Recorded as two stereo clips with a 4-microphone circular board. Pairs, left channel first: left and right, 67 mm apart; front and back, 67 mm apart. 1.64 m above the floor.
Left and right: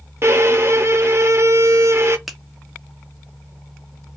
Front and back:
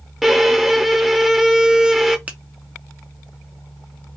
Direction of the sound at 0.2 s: 100° right.